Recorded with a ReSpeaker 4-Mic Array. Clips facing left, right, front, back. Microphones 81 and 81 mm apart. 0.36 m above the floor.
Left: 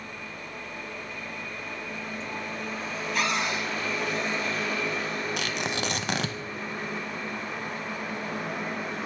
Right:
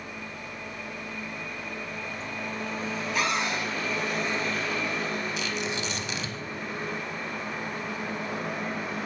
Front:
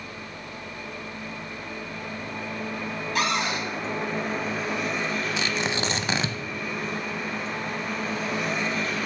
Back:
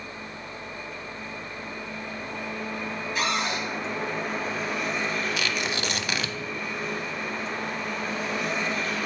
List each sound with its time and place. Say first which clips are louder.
3.1 s a cupboard door: even, front 2 dB; 5° right, 2 m
5.4 s tearing paper: left 1 dB, front 2 dB; 60° left, 0.5 m